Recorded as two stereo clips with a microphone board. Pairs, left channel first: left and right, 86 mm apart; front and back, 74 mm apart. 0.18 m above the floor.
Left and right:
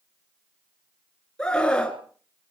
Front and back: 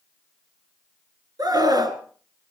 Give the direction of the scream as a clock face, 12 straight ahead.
6 o'clock.